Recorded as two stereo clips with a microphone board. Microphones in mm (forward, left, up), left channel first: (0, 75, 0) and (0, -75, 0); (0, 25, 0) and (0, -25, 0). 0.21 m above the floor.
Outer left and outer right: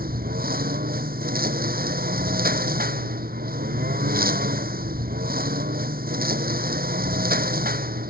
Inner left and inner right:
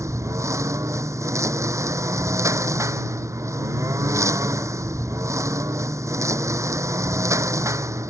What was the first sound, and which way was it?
A lawn mower, 85° right.